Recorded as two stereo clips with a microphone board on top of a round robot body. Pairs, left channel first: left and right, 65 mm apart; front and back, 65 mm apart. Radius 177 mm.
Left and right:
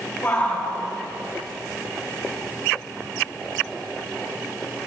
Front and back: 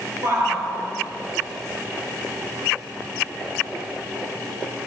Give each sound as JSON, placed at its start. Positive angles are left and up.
{"t": 0.2, "sound": "a shout", "azimuth_deg": 145, "distance_m": 6.0}